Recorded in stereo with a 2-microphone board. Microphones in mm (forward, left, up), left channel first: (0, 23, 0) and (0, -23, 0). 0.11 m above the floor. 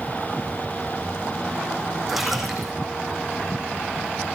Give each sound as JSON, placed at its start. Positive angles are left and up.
{"t": 2.1, "sound": "a splash", "side_deg": -5, "distance_m": 5.0}